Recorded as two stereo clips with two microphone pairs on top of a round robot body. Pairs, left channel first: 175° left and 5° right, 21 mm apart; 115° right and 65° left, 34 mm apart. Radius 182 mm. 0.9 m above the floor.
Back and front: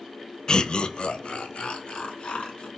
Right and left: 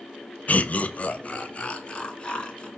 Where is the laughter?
140° right, 0.7 m; by 2.7 s 175° right, 1.9 m.